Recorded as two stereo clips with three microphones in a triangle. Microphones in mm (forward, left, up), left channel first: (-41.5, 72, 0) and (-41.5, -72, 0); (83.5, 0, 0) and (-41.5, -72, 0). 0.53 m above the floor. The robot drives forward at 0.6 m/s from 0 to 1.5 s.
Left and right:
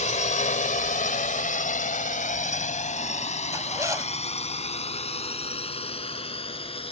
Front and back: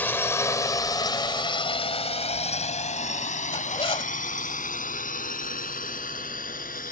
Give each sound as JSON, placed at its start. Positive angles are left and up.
{"t": 0.0, "sound": "a drone", "azimuth_deg": 105}
{"t": 3.5, "sound": "a zipper", "azimuth_deg": -25}